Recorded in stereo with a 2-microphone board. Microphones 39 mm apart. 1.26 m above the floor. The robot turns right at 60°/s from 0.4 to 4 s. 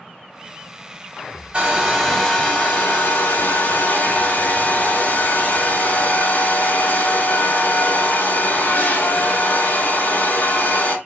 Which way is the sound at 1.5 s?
25° right.